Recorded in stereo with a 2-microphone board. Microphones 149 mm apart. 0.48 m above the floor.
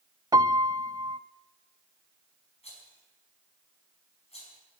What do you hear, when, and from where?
0.3 s a piano: 30° right (ahead or behind), 0.5 m
2.6 s a rattle: 45° left (ahead or behind), 5 m